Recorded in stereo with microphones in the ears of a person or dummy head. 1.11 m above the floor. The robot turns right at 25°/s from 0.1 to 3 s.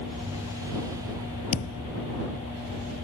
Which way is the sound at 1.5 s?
85° left.